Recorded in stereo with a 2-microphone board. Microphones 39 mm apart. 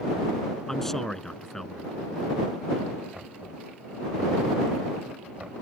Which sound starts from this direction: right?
Knocking, at 3.1 s.